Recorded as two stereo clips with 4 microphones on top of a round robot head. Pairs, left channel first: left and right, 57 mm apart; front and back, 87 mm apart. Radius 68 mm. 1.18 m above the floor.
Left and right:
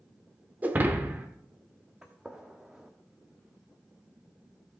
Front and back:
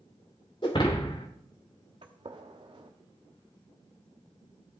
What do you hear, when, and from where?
0.6 s breaking glass: 45° right, 0.9 m
2.0 s a gunshot: 170° right, 0.7 m